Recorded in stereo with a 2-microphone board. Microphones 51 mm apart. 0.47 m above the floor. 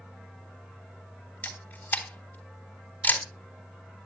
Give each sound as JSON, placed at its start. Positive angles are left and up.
{"t": 1.4, "sound": "a camera shutter", "side_deg": 40, "distance_m": 3.5}